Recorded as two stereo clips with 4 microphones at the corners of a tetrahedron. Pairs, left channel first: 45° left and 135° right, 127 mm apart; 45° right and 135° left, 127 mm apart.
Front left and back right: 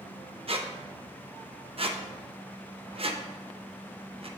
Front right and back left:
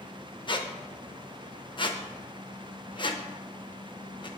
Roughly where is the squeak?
Right.